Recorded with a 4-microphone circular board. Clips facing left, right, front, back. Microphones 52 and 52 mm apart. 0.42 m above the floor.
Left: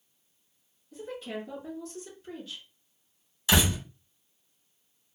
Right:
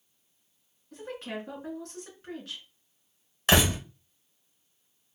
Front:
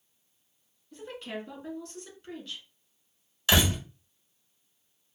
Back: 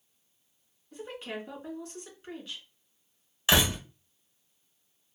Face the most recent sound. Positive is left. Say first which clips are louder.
# right 2 dB, even
turn(degrees=-115)